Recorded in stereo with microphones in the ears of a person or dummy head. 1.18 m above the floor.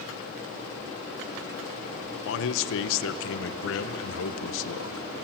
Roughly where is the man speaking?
Left.